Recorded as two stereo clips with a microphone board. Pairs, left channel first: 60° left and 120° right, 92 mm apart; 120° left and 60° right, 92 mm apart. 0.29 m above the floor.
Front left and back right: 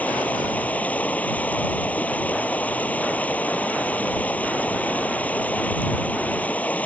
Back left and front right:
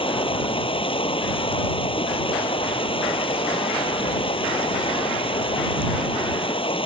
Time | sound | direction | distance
0.0 | running water | 135° left | ?